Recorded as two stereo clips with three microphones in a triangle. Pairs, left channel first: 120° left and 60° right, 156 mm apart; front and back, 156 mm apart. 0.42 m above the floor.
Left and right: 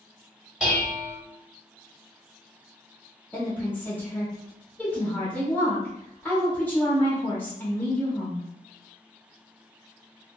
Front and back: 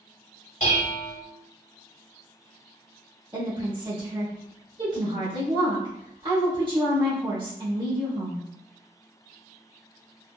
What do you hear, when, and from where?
0.6 s dishes clattering: 25° left, 1.5 m
3.3 s a woman speaking: 170° right, 1.2 m